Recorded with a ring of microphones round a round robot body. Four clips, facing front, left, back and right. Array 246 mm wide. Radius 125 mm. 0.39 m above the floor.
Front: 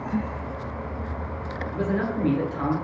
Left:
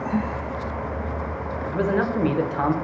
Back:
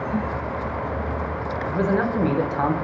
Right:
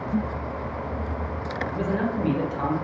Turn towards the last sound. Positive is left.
turn(degrees=135)